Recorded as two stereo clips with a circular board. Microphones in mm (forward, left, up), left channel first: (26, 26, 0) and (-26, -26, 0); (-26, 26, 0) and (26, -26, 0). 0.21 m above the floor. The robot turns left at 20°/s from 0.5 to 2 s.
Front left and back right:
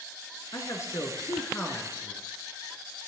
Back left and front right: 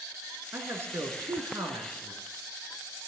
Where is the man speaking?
10° left, 2.5 m; by 2.2 s 20° right, 2.5 m.